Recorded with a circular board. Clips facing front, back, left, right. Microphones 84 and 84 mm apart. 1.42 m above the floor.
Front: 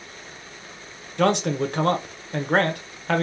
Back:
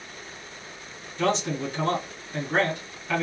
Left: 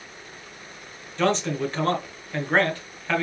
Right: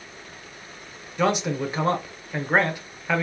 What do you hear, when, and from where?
1.2 s a man speaking: 10° right, 0.8 m